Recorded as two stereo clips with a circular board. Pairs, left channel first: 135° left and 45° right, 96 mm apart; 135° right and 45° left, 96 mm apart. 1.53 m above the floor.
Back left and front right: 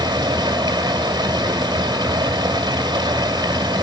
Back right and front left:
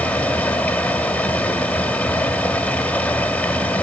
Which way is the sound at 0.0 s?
65° right.